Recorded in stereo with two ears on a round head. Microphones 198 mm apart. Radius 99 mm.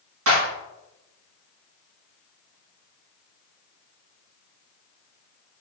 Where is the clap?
75° right (ahead or behind), 2.5 m.